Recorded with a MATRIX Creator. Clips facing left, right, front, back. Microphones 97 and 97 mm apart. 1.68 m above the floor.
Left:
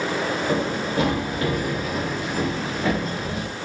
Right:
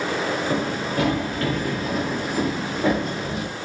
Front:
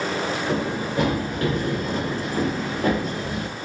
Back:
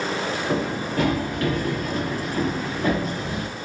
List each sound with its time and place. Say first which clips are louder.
0.5 s running footsteps: left 1 dB, even; 70° left, 2.0 m; by 3.5 s 40° right, 2.5 m